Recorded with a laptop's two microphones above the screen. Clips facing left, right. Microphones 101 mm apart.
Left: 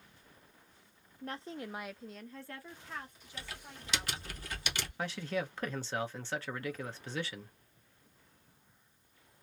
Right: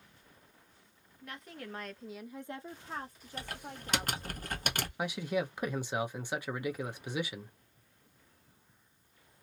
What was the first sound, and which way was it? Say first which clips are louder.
A woman speaking: left 4 dB; 40° left (ahead or behind).